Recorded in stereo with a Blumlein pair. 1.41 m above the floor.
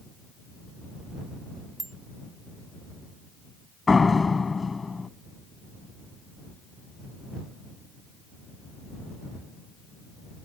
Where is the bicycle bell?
10° right.